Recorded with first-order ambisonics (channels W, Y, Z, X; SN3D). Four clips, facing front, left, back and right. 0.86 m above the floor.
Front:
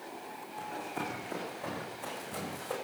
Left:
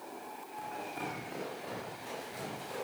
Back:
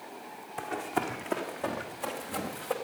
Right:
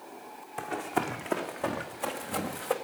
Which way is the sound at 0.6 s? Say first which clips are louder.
Right 9 dB, back 6 dB; 125° right.